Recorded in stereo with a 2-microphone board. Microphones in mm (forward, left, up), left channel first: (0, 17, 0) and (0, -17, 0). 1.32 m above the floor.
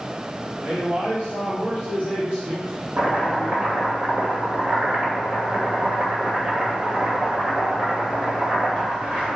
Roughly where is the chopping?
Right.